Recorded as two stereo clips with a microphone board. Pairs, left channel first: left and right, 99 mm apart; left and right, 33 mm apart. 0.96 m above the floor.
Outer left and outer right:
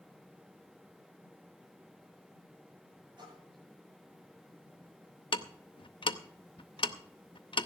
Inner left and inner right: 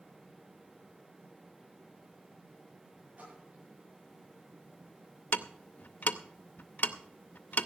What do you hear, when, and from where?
3.2 s a splash: 50° right (ahead or behind), 9.5 m
5.3 s ticking: 60° left (ahead or behind), 0.7 m